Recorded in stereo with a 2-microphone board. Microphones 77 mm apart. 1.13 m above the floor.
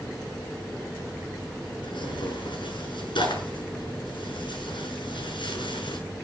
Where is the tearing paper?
85° left, 6.5 m.